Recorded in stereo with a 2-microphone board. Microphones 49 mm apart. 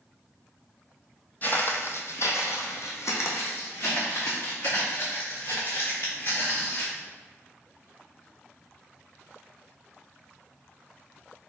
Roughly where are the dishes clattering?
No dishes clattering in this recording.